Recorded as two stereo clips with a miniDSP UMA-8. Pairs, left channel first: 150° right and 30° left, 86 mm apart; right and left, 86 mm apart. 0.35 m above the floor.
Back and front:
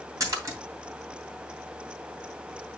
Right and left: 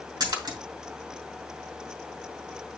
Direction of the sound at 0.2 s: 70° left.